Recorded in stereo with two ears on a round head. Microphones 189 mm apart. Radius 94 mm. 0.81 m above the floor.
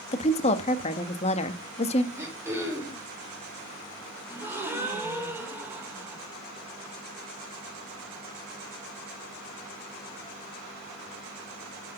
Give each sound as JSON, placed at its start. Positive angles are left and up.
{"t": 0.1, "sound": "a woman speaking", "side_deg": 30, "distance_m": 1.1}
{"t": 2.1, "sound": "throat clearing", "side_deg": -10, "distance_m": 3.0}
{"t": 4.3, "sound": "a gasp", "side_deg": -10, "distance_m": 2.0}